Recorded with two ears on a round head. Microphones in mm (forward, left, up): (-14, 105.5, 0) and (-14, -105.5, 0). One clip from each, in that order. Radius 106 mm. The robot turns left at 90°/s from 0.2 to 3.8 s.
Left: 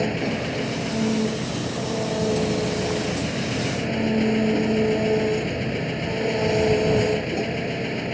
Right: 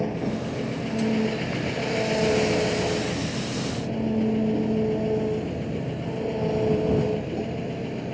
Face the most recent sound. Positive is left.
turn(degrees=110)